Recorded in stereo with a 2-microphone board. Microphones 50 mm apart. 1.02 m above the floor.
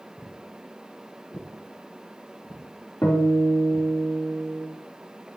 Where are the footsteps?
40° left (ahead or behind), 3.5 m; by 3.9 s 70° left (ahead or behind), 4.5 m.